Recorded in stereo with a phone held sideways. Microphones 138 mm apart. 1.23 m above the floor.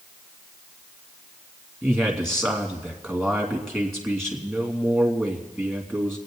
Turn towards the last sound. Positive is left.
turn(degrees=5)  # may be behind; listen again after turning